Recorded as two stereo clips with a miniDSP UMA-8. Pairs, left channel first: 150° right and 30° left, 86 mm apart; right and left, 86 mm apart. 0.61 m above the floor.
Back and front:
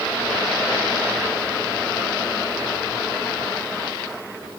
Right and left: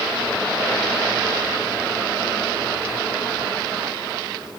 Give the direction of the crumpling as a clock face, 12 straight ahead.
I don't hear crumpling.